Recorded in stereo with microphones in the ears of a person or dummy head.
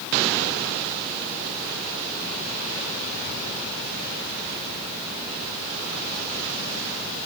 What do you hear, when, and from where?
Only background noise.